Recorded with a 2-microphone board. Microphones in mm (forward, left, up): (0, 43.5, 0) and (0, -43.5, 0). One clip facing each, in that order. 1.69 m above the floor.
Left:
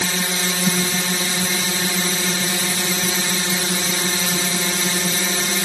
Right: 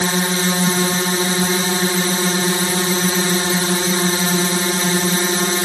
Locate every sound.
0.0 s a drone: 35° right (ahead or behind)